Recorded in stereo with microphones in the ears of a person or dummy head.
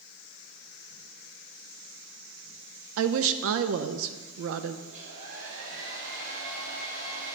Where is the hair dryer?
65° right (ahead or behind), 2.5 m.